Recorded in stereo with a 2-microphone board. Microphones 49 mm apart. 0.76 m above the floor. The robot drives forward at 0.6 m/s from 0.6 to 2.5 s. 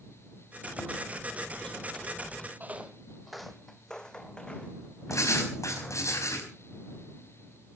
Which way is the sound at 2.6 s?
35° right (ahead or behind).